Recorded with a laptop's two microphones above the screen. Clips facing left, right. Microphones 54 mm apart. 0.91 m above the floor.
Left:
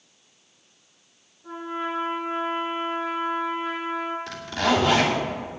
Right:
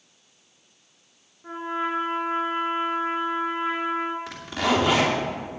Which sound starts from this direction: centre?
A zipper, at 4.3 s.